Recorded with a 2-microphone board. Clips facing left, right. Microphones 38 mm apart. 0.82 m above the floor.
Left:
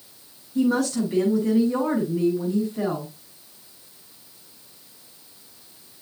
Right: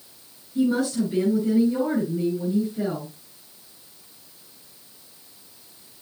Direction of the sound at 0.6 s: 75° left (ahead or behind).